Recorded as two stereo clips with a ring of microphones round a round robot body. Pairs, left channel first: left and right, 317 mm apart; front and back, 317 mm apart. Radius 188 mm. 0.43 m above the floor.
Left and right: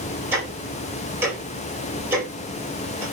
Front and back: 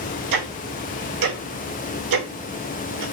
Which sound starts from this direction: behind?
Ticking, at 0.3 s.